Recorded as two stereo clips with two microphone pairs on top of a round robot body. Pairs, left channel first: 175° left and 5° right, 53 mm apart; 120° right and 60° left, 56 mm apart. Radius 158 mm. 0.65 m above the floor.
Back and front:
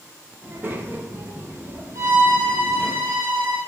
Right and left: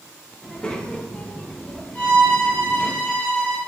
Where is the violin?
50° right, 1.6 m.